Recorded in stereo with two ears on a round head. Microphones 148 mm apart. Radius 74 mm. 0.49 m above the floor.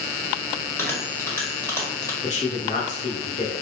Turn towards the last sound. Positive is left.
turn(degrees=40)  # may be behind; listen again after turning